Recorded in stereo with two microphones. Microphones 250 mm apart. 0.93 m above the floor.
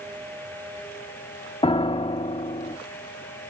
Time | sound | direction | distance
1.6 | a piano | 20° left (ahead or behind) | 0.5 m